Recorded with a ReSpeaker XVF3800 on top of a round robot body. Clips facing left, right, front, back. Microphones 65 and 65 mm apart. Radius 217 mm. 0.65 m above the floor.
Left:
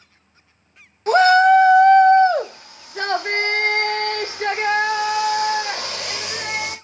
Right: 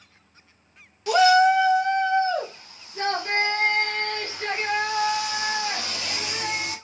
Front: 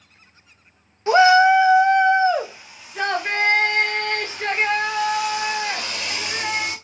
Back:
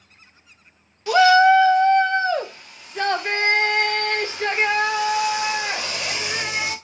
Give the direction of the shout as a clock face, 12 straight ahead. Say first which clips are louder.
Left 4 dB, even; 10 o'clock.